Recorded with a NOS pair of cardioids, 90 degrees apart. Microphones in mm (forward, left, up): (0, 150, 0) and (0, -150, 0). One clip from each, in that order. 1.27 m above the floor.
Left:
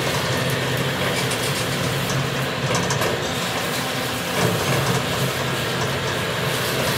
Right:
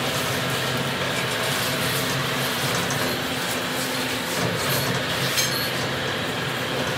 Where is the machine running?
40° left.